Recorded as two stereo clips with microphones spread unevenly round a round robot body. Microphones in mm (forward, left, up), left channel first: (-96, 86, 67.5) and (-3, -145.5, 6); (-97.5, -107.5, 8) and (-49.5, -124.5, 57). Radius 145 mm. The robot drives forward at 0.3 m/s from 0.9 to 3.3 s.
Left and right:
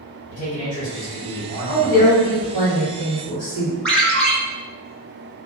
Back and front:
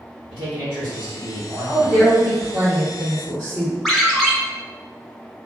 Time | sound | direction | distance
0.3 | a man speaking | 115° left | 2.0 m
1.7 | a woman speaking | 115° left | 1.6 m
3.9 | a ringtone | 155° right | 0.9 m